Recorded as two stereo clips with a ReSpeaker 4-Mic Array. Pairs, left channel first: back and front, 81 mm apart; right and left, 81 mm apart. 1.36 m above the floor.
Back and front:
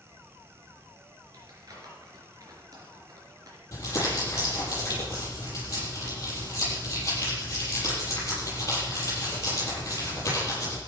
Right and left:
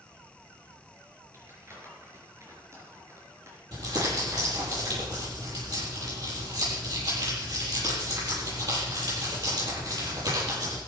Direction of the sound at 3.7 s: 125° left.